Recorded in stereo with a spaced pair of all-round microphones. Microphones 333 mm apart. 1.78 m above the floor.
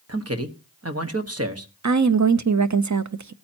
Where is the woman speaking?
55° right (ahead or behind), 0.6 m.